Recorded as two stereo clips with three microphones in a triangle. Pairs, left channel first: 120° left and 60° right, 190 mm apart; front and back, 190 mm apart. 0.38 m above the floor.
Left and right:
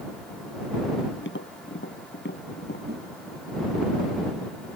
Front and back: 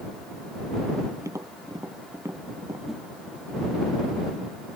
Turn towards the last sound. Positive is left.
turn(degrees=-90)